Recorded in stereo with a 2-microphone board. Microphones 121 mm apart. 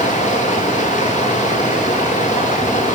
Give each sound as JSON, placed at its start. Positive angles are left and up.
{"t": 0.0, "sound": "running water", "side_deg": 90, "distance_m": 3.5}